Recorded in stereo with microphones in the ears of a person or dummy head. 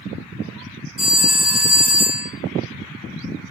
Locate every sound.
1.0 s a phone ringing: 25° right (ahead or behind), 0.7 m